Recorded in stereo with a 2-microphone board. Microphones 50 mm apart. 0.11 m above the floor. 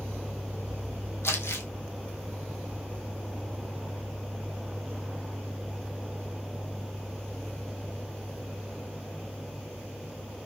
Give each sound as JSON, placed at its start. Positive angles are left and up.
{"t": 1.2, "sound": "crumpling", "side_deg": 55, "distance_m": 1.6}